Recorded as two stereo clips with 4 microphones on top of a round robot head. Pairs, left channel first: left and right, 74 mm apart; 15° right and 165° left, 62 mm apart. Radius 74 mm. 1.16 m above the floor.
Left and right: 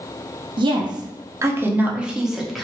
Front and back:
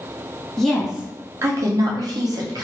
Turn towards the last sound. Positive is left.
turn(degrees=180)